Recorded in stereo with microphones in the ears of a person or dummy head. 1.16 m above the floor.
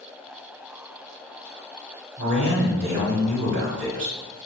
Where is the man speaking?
60° right (ahead or behind), 1.4 m.